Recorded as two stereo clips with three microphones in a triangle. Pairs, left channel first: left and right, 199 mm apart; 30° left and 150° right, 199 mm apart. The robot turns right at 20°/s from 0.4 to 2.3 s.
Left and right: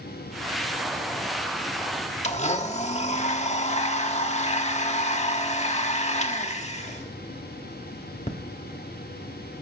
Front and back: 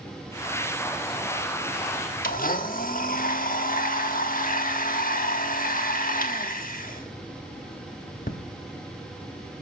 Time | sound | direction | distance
2.2 | a blender | 50° left | 1.1 m